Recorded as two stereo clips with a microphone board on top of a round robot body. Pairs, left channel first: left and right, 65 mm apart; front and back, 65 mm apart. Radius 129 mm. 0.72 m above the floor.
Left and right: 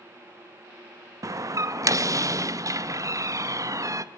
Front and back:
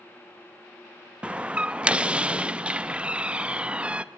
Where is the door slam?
110° right, 0.8 m.